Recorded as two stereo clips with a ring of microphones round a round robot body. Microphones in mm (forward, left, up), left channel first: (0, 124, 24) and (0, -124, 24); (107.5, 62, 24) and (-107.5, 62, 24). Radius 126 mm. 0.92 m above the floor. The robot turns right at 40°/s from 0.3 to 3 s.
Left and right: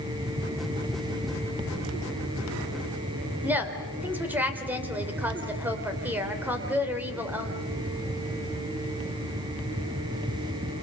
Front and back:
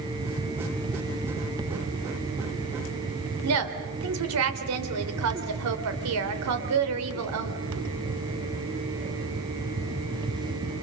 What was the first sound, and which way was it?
A woman speaking, 175° right.